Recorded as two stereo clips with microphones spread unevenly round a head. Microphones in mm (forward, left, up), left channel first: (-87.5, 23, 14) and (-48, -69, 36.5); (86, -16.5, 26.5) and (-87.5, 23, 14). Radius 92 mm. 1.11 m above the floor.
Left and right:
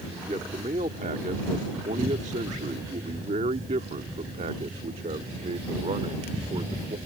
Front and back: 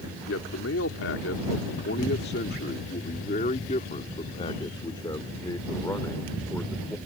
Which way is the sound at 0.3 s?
20° right.